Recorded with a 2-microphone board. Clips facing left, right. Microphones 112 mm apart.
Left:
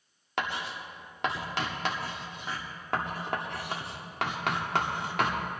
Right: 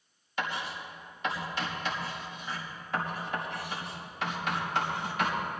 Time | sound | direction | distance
0.4 | writing | 70° left (ahead or behind) | 1.7 m